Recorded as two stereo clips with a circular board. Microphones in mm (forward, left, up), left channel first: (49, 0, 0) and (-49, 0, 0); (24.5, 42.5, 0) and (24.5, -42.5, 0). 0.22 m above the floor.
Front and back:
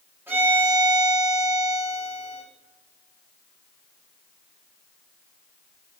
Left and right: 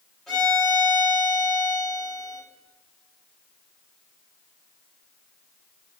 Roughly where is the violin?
Behind.